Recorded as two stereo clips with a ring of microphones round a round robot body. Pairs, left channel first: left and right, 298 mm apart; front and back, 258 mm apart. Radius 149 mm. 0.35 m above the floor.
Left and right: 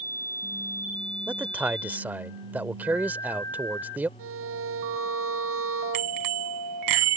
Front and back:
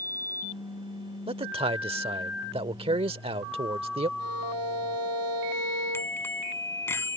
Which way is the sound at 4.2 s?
135° right.